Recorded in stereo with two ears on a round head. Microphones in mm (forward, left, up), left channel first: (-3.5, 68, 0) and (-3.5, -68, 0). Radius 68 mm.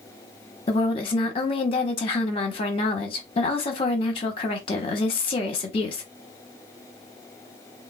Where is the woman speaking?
35° left (ahead or behind), 0.9 m.